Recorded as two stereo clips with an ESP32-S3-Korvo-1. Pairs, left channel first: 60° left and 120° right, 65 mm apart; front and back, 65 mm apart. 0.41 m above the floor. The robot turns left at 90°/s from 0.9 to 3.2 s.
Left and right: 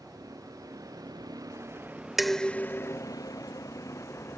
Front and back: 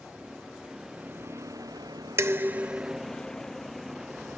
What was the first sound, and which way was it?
A vehicle, 105° right.